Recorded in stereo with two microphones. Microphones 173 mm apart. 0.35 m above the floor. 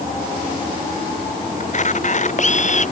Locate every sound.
1.6 s a camera shutter: 45° left (ahead or behind)